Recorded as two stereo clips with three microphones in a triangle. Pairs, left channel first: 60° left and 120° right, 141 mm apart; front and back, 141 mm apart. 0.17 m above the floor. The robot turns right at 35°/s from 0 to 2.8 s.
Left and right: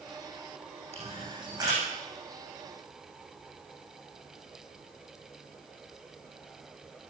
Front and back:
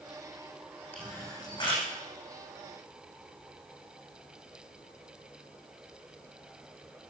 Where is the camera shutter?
80° right, 8 m; by 1.9 s 50° right, 8 m.